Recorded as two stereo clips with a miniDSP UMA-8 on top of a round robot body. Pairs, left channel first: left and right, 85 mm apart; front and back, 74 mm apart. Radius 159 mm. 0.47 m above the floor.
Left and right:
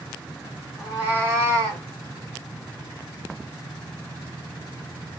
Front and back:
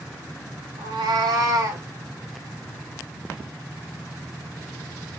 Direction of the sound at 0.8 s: 175° right.